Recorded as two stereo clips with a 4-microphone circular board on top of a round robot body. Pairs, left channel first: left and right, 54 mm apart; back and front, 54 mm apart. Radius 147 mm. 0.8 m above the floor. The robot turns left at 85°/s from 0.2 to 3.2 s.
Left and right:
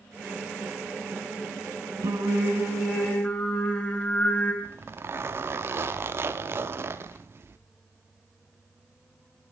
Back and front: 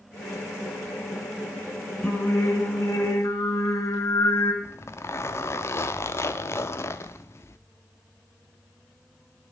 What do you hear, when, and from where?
2.0 s singing: 100° right, 3.5 m; by 4.5 s 160° left, 3.5 m
4.6 s a zipper: 140° right, 0.5 m